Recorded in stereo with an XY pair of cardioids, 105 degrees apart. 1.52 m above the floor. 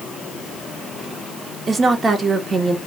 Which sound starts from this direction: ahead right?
A woman speaking, at 1.7 s.